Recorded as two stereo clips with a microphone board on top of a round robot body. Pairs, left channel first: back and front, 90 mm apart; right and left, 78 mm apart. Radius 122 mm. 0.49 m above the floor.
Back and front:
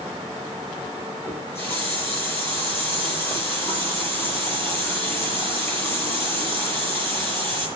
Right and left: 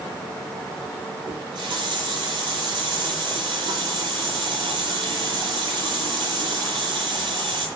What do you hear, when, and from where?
1.3 s a running tap: 115° left, 9 m